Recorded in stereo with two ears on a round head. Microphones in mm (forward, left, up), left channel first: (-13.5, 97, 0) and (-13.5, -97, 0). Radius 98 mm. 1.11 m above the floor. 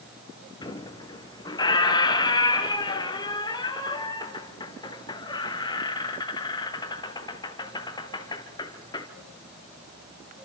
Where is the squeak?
20° left (ahead or behind), 1.6 m.